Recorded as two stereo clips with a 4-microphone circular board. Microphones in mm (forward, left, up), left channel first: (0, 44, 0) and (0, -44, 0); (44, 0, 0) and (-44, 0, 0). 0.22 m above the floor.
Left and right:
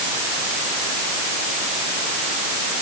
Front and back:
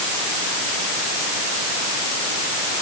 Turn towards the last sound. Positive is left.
No sound to turn to.